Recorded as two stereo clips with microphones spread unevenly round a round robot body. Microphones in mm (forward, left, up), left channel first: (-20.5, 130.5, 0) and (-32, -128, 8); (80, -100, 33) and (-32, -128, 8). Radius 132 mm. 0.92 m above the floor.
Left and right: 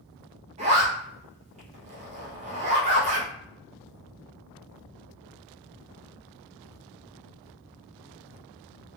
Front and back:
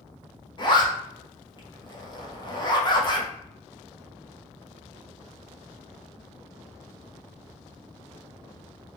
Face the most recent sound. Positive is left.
turn(degrees=-35)